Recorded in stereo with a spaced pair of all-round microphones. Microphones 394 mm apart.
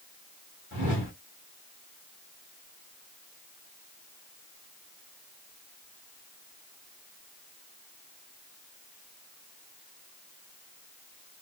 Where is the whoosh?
45° right (ahead or behind), 1.3 m.